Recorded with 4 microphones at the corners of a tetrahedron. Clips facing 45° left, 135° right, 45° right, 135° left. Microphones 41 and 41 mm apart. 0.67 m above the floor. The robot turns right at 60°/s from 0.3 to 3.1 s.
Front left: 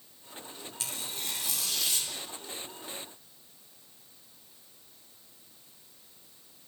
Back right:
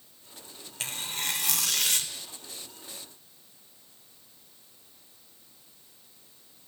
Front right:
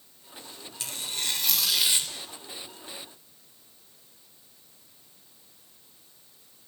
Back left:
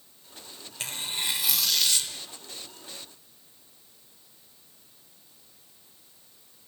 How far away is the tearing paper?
About 0.7 m.